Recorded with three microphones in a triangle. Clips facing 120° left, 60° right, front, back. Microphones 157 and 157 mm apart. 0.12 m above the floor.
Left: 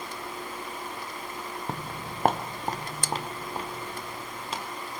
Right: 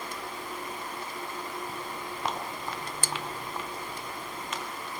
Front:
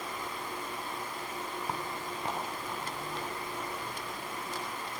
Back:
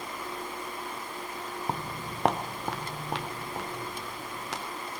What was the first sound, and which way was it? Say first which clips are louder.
Footsteps: left 2 dB, back 2 dB; 120° left.